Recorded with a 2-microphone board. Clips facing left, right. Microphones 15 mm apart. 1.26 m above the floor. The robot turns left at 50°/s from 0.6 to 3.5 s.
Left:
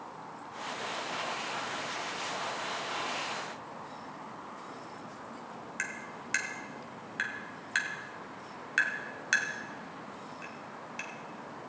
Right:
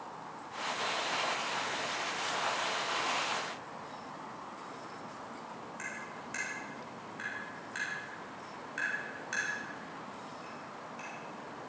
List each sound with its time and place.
5.8 s tapping: 40° left (ahead or behind), 2.5 m